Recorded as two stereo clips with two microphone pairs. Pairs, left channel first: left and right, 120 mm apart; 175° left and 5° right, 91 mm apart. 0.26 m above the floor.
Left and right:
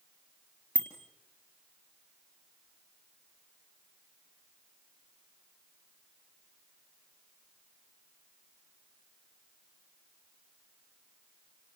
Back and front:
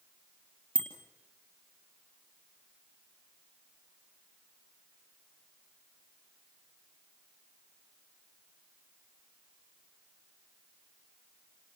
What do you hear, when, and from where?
0.8 s a bicycle bell: 15° left, 3.5 m